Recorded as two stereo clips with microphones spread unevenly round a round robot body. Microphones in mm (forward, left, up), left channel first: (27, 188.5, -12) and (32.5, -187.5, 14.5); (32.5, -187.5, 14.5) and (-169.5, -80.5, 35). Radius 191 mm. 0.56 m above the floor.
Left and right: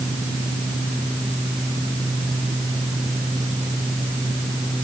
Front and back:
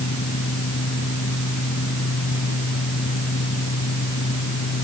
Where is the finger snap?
No finger snap in this recording.